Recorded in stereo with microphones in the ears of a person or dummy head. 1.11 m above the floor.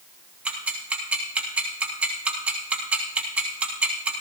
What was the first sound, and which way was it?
Ticking, 10° right (ahead or behind).